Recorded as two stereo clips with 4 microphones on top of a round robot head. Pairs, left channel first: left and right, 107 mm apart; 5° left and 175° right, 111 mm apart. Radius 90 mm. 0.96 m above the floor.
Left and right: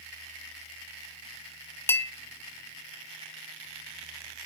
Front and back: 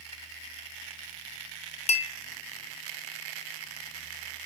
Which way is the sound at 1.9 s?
20° left.